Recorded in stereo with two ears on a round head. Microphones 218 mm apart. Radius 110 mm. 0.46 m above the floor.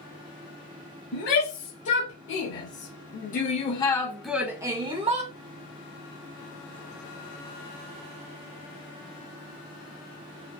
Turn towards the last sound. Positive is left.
turn(degrees=-25)  # may be behind; listen again after turning